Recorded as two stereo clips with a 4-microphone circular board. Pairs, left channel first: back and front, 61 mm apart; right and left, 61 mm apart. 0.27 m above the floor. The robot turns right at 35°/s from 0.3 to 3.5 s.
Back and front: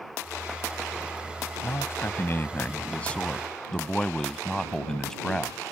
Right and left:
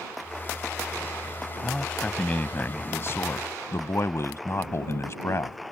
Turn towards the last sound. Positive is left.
turn(degrees=-105)